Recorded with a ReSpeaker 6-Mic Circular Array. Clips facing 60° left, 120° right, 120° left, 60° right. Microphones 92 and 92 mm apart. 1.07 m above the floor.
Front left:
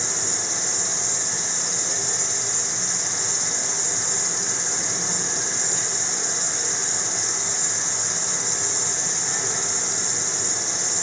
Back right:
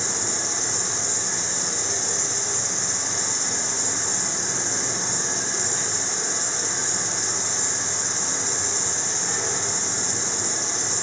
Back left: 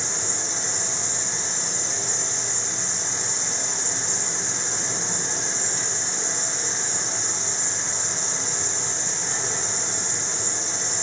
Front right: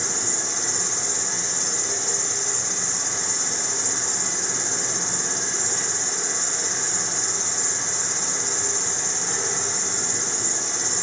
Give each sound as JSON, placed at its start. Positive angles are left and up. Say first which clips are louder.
{"t": 0.0, "sound": "an insect", "louder": "back right 1 dB, front right 1 dB", "azimuth_deg": -85, "distance_m": 2.0}